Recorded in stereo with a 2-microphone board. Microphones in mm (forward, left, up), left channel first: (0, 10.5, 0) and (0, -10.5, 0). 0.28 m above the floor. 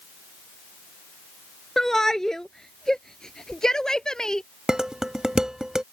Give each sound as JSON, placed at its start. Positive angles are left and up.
{"t": 1.8, "sound": "a shout", "side_deg": 20}
{"t": 4.7, "sound": "dishes clattering", "side_deg": -30}